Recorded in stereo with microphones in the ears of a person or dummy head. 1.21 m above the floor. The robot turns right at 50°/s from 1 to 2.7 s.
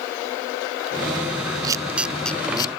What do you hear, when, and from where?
1.6 s a camera shutter: 20° right (ahead or behind); by 2.7 s 30° left (ahead or behind)